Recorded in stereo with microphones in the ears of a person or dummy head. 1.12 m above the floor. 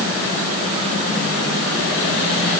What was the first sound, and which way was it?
Only background noise.